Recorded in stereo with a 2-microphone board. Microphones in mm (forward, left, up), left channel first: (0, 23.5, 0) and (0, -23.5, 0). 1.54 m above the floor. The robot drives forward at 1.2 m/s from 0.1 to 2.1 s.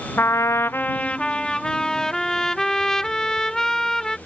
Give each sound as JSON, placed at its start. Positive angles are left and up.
{"t": 0.2, "sound": "a trumpet", "side_deg": 50}